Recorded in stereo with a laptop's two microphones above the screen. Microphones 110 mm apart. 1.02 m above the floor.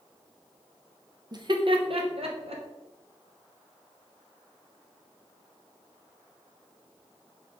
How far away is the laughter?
About 0.6 m.